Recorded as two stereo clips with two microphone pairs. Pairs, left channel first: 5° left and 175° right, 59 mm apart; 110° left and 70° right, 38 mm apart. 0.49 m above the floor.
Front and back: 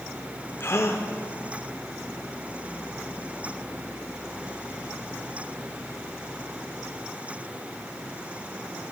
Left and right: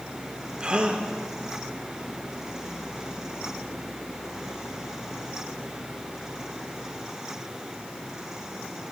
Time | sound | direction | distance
0.6 | a gasp | 15° right | 0.6 m